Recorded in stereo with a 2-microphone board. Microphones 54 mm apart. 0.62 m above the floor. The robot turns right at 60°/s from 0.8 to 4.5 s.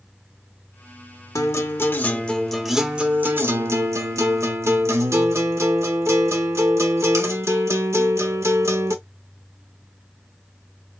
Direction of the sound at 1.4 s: 105° left.